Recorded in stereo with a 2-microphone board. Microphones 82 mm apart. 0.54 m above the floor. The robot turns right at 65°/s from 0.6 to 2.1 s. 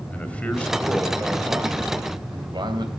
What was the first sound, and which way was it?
A man speaking, 165° left.